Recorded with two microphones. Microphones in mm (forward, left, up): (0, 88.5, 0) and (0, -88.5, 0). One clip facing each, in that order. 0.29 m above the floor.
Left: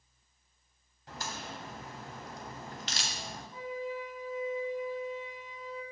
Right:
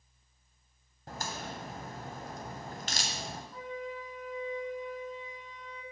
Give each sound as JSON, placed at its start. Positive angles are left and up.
{"t": 1.1, "sound": "a crack", "side_deg": -50, "distance_m": 1.4}
{"t": 3.5, "sound": "a flute", "side_deg": 5, "distance_m": 1.4}